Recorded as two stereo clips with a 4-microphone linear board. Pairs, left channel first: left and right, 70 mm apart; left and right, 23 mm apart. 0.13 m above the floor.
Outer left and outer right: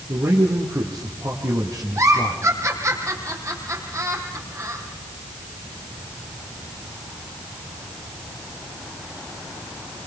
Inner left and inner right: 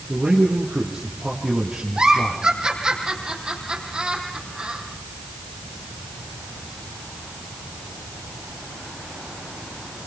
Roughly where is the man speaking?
Right.